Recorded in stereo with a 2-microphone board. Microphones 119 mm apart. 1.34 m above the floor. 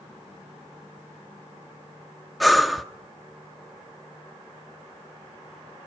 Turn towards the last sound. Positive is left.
turn(degrees=0)  # may be behind; listen again after turning